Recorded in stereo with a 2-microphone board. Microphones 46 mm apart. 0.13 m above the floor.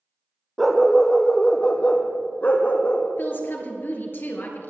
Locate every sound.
0.6 s a dog barking: 5° right (ahead or behind), 1.4 m; by 3.1 s 45° left (ahead or behind), 2 m
3.2 s a woman speaking: 50° left (ahead or behind), 2.5 m